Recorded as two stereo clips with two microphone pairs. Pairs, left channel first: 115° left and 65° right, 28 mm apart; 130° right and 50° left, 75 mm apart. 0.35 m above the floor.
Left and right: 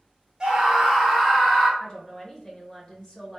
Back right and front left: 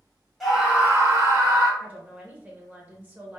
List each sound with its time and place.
0.4 s a scream: 45° right, 1.1 m; by 1.7 s 45° left, 1.9 m
1.8 s a woman speaking: 75° left, 0.9 m